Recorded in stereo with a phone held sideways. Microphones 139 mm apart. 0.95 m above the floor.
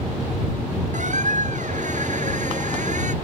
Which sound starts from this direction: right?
A squeak, at 0.9 s.